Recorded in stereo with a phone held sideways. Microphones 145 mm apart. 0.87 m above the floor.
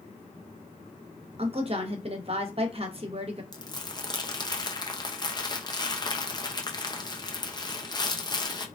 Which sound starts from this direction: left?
Crumpling, at 3.5 s.